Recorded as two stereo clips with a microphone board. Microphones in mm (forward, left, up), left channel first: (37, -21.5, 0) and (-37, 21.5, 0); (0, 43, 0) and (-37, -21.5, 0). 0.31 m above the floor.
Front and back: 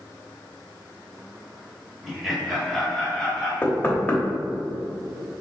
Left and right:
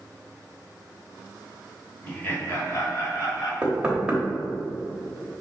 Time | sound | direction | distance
2.0 | laughter | 70° left | 0.9 m
3.6 | knocking | 60° right | 0.8 m